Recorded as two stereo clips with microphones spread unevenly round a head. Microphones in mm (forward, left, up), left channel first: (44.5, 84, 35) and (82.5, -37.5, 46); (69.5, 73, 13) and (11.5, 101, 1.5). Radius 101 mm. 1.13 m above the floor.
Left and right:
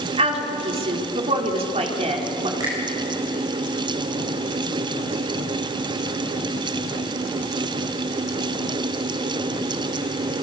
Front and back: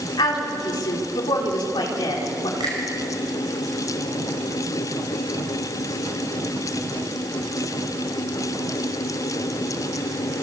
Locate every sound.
0.2 s a woman speaking: 30° right, 4 m
2.6 s a finger snap: 145° right, 5 m